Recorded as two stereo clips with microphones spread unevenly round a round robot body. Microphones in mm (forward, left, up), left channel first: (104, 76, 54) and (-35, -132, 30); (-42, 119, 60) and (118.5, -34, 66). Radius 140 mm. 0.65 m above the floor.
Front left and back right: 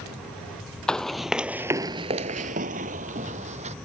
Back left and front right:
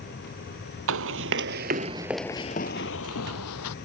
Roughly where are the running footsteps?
Ahead right.